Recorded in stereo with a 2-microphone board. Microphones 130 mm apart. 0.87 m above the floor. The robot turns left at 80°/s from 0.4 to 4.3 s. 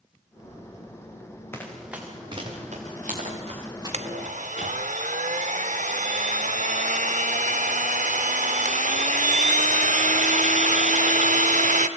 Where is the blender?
60° right (ahead or behind), 1.0 m; by 11.9 s 75° right (ahead or behind), 1.0 m.